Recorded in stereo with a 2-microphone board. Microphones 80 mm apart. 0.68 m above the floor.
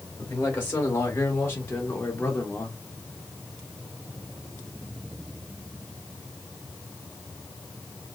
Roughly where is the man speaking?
Left.